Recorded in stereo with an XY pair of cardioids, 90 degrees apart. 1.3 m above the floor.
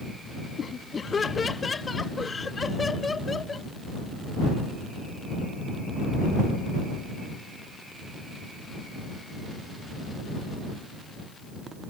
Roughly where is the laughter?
Ahead left.